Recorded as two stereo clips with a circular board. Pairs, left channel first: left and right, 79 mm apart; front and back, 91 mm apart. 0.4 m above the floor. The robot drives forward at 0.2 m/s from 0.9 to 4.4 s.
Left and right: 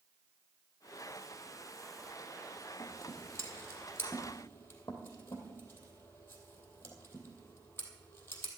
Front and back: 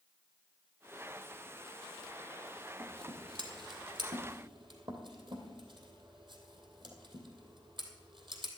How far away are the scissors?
About 2.5 m.